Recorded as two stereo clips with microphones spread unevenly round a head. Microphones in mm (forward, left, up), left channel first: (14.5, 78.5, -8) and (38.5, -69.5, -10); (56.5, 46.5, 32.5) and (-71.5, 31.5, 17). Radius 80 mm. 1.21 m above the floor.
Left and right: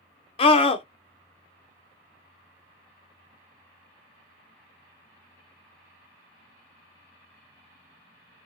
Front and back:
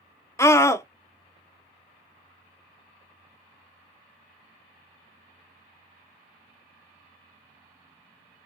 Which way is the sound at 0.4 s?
75° left.